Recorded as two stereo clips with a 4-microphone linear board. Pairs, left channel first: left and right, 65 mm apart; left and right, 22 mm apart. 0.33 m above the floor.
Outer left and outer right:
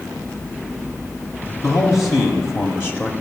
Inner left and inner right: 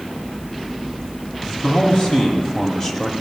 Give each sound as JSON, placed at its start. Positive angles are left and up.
{"t": 1.6, "sound": "a man speaking", "side_deg": 60, "distance_m": 1.9}